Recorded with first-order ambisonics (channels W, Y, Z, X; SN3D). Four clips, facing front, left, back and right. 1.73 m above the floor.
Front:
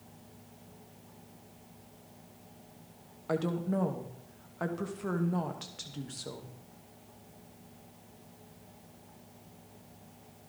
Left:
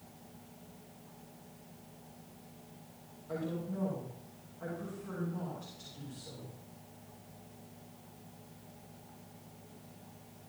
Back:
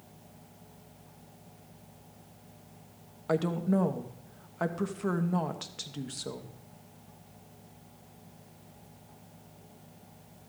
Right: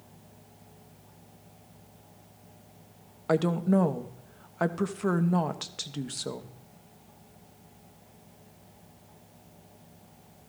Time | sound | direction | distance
3.3 | a woman speaking | 105° right | 1.1 m